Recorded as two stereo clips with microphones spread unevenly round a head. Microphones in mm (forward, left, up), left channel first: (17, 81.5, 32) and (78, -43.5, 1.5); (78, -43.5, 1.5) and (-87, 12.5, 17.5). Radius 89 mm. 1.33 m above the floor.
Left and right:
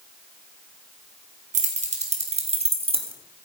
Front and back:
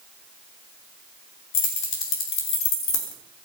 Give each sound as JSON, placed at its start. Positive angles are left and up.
{"t": 1.5, "sound": "keys jangling", "azimuth_deg": -30, "distance_m": 3.5}